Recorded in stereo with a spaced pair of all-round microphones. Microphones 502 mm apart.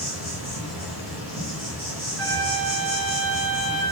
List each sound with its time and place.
0.0 s an insect: 35° right (ahead or behind), 2.0 m
2.2 s a flute: 55° right (ahead or behind), 1.9 m